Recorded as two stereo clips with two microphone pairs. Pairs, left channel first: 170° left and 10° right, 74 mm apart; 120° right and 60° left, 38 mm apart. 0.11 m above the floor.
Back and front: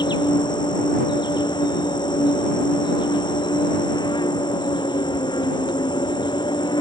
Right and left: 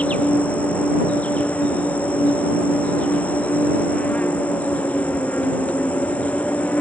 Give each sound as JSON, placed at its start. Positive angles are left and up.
{"t": 0.0, "sound": "an insect", "azimuth_deg": -175}